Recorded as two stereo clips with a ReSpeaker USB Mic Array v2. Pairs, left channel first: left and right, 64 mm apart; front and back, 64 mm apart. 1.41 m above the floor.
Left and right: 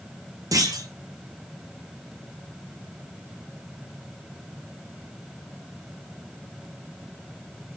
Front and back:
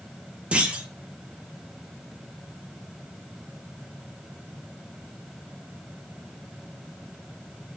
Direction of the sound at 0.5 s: 110° right.